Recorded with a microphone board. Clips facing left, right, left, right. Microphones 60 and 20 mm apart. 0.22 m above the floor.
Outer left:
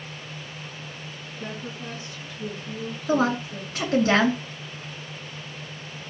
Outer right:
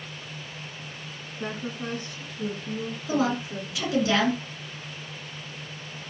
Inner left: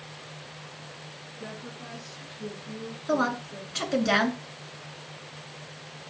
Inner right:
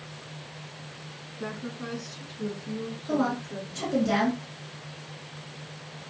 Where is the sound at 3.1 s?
45° left (ahead or behind), 2.5 m.